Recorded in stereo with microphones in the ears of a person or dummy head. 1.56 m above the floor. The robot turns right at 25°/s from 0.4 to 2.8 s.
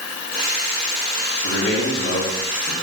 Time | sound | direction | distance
1.4 | a man speaking | 85° left | 2.5 m